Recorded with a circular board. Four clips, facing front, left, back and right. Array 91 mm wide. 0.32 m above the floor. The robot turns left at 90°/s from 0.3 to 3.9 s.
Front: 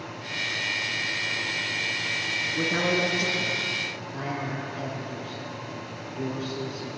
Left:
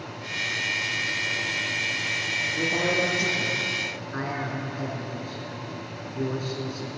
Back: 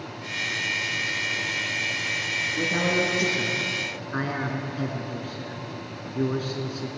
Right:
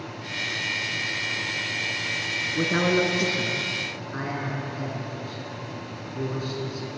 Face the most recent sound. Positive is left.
turn(degrees=175)